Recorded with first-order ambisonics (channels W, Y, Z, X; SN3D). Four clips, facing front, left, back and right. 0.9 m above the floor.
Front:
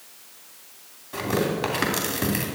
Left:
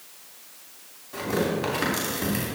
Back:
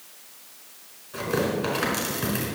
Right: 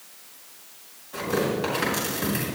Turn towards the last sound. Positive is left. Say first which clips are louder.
# right 1 dB, front 1 dB
turn(degrees=15)